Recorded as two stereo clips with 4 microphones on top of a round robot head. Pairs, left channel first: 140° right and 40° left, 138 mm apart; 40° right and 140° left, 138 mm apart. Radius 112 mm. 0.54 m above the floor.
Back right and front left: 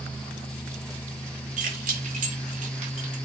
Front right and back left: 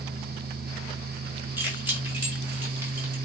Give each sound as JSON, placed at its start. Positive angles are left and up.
{"t": 1.6, "sound": "keys jangling", "azimuth_deg": 65, "distance_m": 5.0}